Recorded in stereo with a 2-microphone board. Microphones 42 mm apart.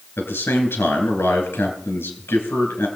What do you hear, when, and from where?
0.2 s a man speaking: 80° left, 3.5 m